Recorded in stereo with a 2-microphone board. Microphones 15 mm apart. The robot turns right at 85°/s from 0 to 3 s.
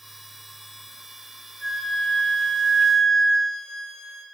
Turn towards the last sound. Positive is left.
turn(degrees=140)